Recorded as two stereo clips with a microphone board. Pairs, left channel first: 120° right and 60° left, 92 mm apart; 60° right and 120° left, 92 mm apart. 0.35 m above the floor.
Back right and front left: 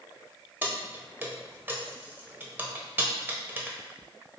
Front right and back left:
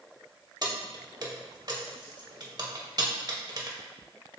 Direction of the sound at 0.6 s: 120° left.